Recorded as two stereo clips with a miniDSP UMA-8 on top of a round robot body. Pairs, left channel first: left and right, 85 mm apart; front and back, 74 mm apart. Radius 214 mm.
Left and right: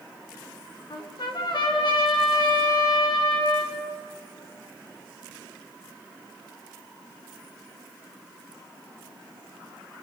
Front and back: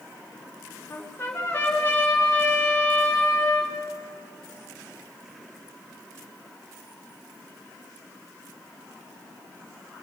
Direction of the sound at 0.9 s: 65° left.